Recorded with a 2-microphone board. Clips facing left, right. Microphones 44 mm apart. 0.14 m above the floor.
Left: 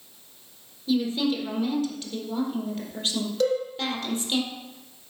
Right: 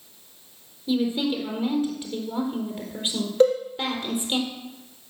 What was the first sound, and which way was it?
A woman speaking, 15° right (ahead or behind).